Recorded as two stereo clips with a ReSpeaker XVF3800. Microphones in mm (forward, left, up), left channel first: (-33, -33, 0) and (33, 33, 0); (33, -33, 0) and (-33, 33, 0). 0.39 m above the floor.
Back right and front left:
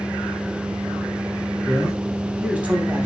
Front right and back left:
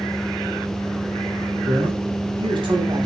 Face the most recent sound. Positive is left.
turn(degrees=110)